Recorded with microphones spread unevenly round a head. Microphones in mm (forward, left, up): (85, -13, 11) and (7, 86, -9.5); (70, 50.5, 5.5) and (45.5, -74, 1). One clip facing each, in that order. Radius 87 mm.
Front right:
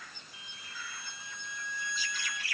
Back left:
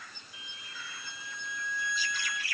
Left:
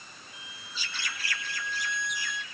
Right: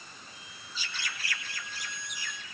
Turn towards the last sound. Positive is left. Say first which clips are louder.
# even, left 2 dB
turn(degrees=130)